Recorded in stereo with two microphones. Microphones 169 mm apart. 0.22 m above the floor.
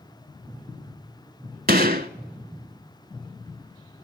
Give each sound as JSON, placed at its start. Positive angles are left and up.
{"t": 1.7, "sound": "a gunshot", "side_deg": -65, "distance_m": 0.7}